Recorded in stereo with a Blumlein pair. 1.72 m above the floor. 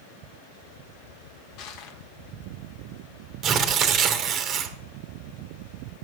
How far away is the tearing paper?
About 1.5 m.